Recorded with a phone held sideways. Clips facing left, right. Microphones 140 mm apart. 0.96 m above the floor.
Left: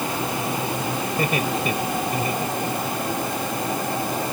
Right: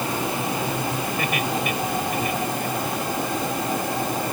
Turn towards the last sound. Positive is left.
turn(degrees=30)  # may be behind; listen again after turning